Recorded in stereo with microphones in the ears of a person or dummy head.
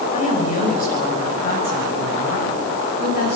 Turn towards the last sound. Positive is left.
turn(degrees=50)  # may be behind; listen again after turning